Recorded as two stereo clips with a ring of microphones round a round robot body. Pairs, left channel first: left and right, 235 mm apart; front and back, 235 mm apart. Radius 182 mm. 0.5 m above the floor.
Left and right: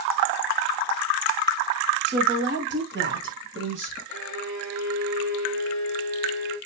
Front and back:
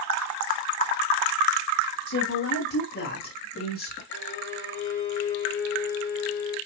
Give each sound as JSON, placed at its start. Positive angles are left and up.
{"t": 2.1, "sound": "a woman speaking", "azimuth_deg": -45, "distance_m": 3.5}
{"t": 4.1, "sound": "a violin", "azimuth_deg": -50, "distance_m": 5.5}